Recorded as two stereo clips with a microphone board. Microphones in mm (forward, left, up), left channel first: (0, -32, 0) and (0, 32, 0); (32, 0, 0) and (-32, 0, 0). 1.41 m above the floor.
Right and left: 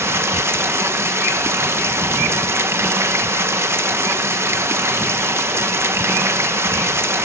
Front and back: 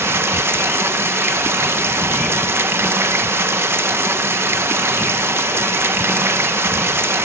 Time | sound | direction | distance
0.0 | running water | 135° left | 0.9 m